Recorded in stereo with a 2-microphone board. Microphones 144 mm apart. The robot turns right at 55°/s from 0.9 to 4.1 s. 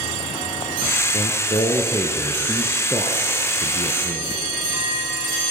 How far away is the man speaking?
About 1.7 m.